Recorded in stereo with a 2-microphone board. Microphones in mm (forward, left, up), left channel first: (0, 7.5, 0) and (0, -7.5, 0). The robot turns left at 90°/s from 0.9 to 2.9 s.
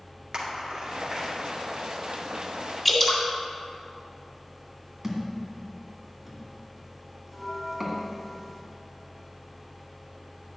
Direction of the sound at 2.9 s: 15° left (ahead or behind).